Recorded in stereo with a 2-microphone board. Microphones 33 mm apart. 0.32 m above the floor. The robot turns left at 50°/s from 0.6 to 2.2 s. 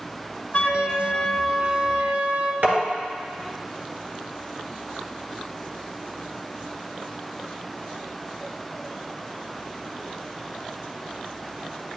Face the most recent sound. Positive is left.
turn(degrees=-65)  # may be behind; listen again after turning